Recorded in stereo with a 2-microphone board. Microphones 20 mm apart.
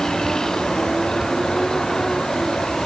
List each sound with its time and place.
0.0 s a vehicle: 35° left (ahead or behind)